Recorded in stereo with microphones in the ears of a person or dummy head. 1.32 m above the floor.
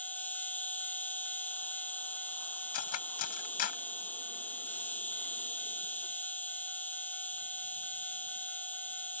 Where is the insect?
10° left (ahead or behind).